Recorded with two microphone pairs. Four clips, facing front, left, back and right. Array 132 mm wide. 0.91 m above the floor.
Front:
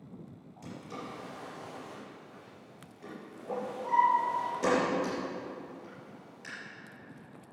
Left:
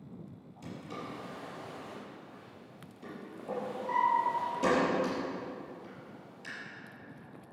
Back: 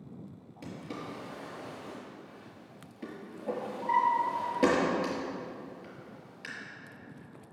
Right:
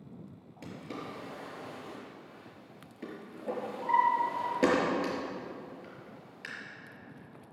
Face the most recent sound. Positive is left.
turn(degrees=-120)